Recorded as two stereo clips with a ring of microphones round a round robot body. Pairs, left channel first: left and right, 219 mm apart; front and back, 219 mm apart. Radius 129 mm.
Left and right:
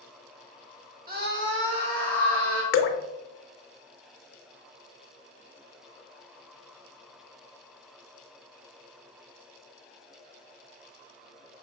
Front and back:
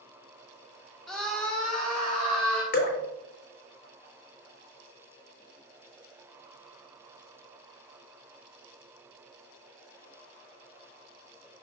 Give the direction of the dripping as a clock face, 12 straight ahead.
10 o'clock.